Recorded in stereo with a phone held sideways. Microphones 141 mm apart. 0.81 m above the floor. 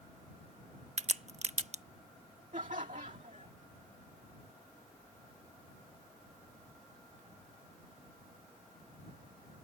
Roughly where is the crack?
Right.